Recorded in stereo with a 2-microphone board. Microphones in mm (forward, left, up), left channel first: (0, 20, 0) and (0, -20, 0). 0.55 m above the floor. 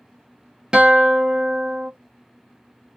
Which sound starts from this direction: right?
A guitar, at 0.7 s.